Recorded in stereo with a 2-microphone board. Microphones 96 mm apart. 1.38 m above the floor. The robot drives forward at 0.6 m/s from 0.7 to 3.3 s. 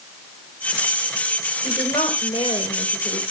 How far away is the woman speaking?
About 5.5 m.